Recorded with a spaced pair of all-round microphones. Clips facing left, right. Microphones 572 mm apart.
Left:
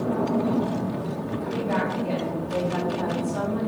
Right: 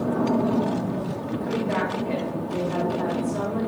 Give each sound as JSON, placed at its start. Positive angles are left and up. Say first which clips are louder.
{"t": 1.4, "sound": "a woman speaking", "louder": "right 1 dB", "side_deg": 70, "distance_m": 3.5}